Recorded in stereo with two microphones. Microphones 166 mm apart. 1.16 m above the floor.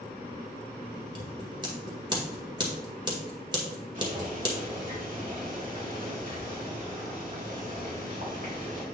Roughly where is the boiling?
Right.